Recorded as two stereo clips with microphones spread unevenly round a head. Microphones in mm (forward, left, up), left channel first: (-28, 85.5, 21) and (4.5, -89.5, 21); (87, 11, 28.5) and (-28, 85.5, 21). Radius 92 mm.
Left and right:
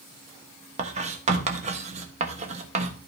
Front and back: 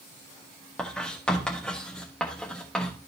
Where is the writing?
110° right, 1.1 m.